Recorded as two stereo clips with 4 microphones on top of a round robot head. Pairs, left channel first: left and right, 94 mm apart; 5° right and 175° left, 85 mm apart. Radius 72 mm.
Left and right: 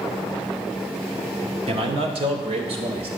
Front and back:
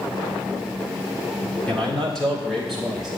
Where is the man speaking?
85° right, 1.8 m; by 3.1 s 95° right, 2.5 m.